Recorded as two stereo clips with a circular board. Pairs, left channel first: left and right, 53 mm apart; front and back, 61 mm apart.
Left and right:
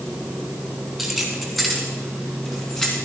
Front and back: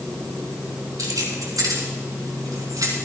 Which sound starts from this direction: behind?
Keys jangling, at 1.0 s.